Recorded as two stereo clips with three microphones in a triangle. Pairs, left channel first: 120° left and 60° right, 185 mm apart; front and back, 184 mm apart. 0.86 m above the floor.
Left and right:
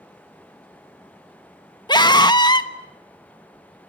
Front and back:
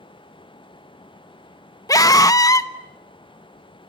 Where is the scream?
65° left, 1.1 m.